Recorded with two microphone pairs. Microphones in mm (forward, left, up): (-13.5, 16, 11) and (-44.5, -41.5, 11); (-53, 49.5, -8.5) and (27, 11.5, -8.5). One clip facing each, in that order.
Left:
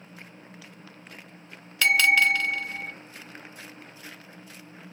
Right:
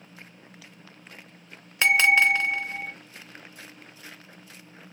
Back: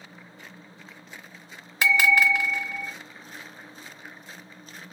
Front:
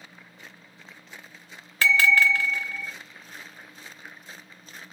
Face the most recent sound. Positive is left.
turn(degrees=-150)